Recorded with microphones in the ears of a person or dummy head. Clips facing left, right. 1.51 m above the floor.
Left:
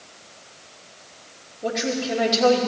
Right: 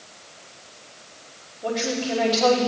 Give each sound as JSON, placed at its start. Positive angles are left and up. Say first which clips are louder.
{"t": 1.6, "sound": "a woman speaking", "louder": "left 1 dB", "side_deg": 35, "distance_m": 3.0}